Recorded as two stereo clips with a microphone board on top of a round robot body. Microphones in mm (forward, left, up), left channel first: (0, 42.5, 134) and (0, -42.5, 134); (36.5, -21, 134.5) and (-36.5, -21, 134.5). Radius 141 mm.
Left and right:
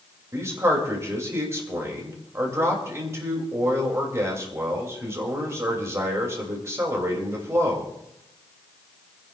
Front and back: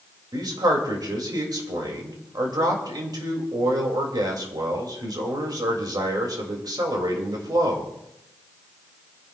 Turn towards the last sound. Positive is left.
turn(degrees=-150)